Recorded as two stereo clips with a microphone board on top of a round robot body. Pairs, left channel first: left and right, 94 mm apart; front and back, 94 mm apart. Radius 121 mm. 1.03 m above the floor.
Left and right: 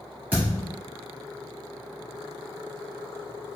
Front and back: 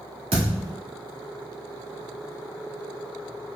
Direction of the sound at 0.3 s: 165° right.